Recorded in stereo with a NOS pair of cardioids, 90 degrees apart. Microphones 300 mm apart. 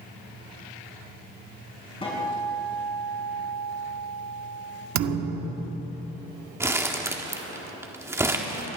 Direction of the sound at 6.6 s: 10° right.